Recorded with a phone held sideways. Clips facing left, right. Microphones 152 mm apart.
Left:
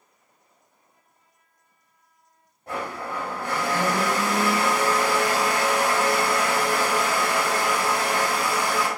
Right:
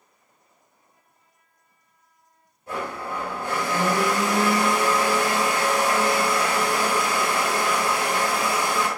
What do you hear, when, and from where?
2.7 s a blender: 55° left (ahead or behind), 2 m